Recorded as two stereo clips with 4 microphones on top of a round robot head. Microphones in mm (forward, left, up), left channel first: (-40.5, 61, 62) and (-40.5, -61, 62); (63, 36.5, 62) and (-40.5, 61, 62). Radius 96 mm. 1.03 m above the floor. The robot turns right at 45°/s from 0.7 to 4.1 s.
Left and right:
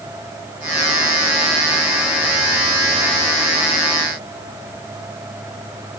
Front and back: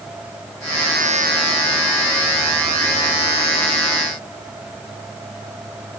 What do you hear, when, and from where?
Only background noise.